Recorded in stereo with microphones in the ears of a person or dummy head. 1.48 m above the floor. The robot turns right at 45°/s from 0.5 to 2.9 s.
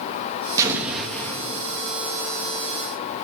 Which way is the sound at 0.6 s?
20° right.